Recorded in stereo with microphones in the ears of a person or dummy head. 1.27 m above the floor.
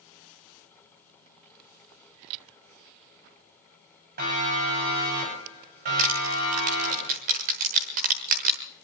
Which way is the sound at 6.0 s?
35° right (ahead or behind).